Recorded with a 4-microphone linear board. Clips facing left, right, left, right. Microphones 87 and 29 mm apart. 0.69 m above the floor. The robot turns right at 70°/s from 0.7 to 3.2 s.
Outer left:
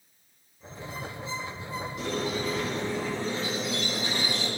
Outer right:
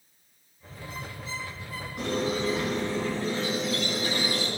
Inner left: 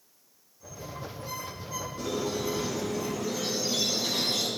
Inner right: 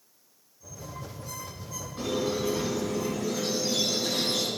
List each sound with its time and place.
2.0 s a squeak: 60° right, 2 m; by 4.5 s 25° left, 2 m